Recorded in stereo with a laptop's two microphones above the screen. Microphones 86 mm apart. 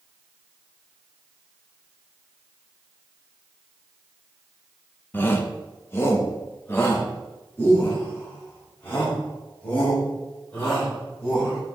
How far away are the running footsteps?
No running footsteps in this recording.